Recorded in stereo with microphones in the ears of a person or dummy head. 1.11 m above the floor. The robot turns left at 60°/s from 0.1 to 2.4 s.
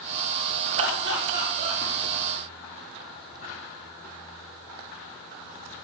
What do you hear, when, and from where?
0.8 s laughter: 50° right (ahead or behind), 0.6 m; by 1.8 s 25° right (ahead or behind), 0.6 m